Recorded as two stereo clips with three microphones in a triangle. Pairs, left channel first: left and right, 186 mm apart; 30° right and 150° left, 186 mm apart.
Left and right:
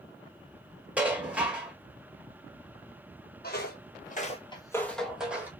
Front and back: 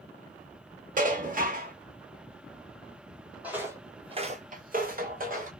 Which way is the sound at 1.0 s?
170° right.